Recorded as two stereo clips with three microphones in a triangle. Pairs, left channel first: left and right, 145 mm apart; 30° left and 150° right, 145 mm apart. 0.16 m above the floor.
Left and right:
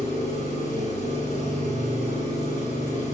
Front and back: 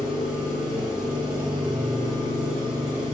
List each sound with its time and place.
0.0 s an engine running: 125° left, 6 m